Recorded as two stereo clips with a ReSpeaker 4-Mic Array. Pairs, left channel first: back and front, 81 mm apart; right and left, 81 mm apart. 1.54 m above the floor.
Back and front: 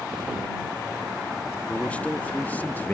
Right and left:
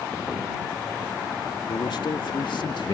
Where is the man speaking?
110° right; by 3.0 s 115° right.